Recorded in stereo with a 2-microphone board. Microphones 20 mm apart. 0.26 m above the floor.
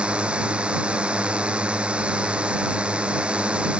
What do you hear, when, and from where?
0.0 s a drone: 85° right